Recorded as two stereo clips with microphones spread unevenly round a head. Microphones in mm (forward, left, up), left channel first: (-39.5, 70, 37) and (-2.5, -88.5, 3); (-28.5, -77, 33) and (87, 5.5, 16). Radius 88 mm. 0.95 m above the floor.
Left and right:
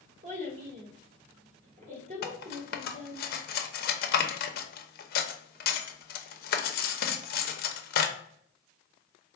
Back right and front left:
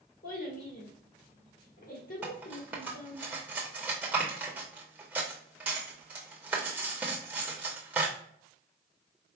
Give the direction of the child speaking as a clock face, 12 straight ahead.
4 o'clock.